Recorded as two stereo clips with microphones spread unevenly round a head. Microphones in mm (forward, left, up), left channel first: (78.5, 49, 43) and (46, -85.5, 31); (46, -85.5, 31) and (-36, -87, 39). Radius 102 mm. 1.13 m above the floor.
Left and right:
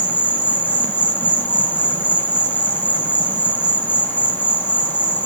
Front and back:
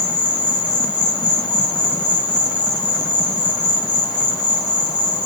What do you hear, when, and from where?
0.0 s an insect: straight ahead, 2 m